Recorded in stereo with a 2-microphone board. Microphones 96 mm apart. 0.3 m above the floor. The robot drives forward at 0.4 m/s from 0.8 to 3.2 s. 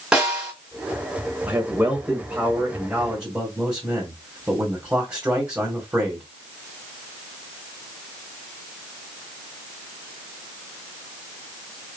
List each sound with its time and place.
0.1 s a snare drum: 10° right (ahead or behind), 2 m
1.5 s a man speaking: 10° right (ahead or behind), 1.2 m